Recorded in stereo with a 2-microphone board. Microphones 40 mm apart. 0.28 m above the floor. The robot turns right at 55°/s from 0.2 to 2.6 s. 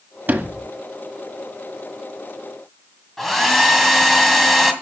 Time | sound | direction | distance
0.3 | a sliding door | 50° right (ahead or behind) | 1.4 m
3.2 | a hair dryer | 5° left (ahead or behind) | 2.0 m